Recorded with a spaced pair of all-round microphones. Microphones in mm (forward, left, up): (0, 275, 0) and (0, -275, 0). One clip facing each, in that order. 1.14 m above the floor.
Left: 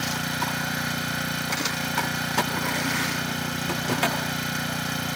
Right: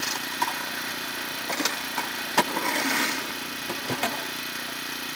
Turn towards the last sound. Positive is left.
turn(degrees=80)